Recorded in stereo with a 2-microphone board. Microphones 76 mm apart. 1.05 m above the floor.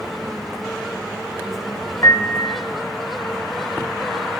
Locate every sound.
2.0 s a piano: 45° left (ahead or behind), 0.9 m